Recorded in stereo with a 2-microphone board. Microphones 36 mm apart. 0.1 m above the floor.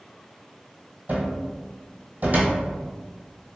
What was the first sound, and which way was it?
A cupboard door, 50° right (ahead or behind).